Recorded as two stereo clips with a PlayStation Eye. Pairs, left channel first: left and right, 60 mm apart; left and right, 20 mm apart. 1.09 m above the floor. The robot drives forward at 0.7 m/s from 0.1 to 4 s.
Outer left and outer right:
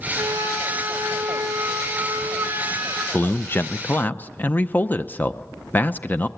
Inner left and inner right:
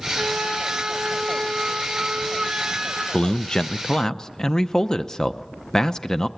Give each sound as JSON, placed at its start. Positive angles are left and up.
{"t": 0.2, "sound": "a flute", "side_deg": -65, "distance_m": 2.5}
{"t": 3.1, "sound": "a man speaking", "side_deg": 30, "distance_m": 0.6}